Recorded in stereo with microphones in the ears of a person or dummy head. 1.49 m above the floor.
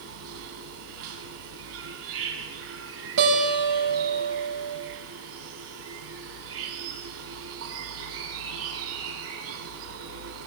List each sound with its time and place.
0.0 s an insect: 80° right, 5.5 m
3.2 s a guitar: 60° right (ahead or behind), 6.5 m